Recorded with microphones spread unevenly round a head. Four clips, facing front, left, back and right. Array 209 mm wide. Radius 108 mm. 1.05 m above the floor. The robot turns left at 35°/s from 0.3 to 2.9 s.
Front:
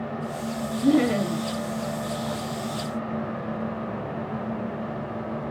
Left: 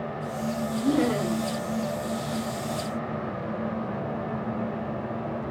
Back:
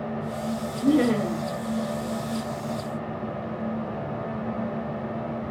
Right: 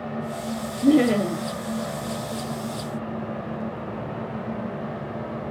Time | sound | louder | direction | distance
0.8 | laughter | right 7 dB, even | 70° right | 1.4 m